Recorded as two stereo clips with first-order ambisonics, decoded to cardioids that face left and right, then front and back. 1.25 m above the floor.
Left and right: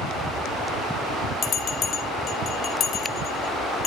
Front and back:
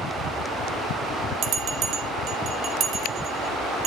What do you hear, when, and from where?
1.4 s a bell: 140° left, 0.9 m